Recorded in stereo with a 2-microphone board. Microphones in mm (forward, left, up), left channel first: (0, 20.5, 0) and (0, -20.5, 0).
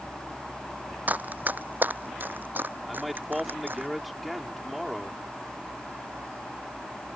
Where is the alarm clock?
No alarm clock in this recording.